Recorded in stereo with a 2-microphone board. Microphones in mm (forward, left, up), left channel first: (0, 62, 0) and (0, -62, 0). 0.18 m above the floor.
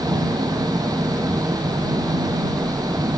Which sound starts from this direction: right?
An engine running, at 0.0 s.